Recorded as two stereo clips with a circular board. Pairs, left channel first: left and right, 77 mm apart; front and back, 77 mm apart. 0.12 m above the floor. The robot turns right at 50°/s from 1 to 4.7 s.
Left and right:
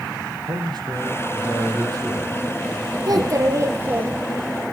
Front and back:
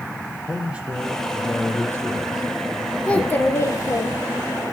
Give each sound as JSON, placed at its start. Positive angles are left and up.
{"t": 0.4, "sound": "a man speaking", "azimuth_deg": -105, "distance_m": 4.5}
{"t": 3.1, "sound": "a child speaking", "azimuth_deg": -75, "distance_m": 1.9}